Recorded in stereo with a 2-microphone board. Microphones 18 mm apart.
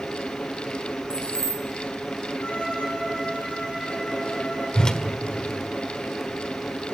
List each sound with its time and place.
1.1 s keys jangling: 45° left (ahead or behind), 1.1 m
2.4 s a violin: 85° left, 9.5 m
4.8 s a whoosh: 45° left (ahead or behind), 1.5 m